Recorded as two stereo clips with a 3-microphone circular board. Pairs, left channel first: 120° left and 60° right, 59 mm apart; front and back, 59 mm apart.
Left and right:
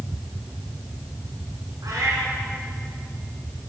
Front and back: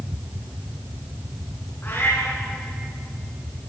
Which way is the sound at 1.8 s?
50° right.